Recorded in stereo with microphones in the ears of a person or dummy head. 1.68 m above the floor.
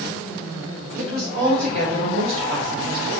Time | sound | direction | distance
1.0 | a woman speaking | 60° right (ahead or behind) | 1.7 m